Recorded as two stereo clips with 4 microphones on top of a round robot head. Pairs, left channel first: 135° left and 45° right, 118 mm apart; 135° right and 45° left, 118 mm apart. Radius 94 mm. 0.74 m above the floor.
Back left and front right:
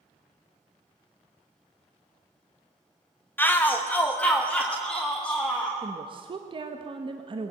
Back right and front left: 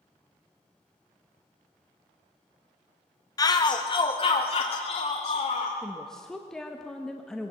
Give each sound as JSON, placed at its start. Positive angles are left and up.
{"t": 3.4, "sound": "a shout", "azimuth_deg": -165, "distance_m": 1.3}
{"t": 5.8, "sound": "a woman speaking", "azimuth_deg": -50, "distance_m": 1.3}